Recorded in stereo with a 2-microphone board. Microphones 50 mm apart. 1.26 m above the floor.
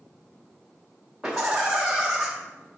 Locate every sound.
1.2 s laughter: 10° right (ahead or behind), 0.6 m